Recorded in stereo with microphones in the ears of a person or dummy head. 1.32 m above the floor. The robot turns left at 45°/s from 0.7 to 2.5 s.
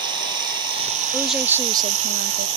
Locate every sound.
0.0 s running water: 25° right; by 2.6 s 105° right
1.1 s a woman speaking: 5° left; by 2.5 s 55° right